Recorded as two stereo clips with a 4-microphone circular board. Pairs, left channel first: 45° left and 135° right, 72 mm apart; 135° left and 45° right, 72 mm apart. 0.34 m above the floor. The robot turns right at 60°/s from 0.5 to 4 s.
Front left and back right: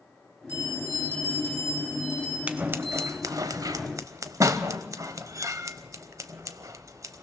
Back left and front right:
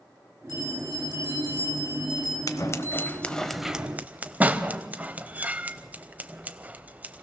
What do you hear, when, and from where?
0.5 s a bell: 75° right, 9.5 m; by 2.4 s 40° left, 9.5 m
2.5 s scissors: 160° left, 0.8 m; by 7.2 s 110° right, 0.8 m